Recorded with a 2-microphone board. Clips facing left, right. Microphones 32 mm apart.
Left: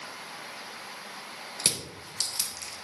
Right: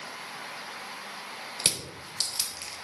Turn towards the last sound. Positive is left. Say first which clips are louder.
# even
turn(degrees=-35)  # may be behind; listen again after turning